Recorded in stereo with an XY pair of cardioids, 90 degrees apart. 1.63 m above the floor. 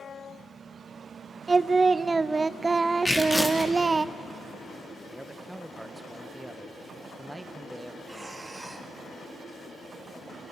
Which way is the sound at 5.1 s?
5° right.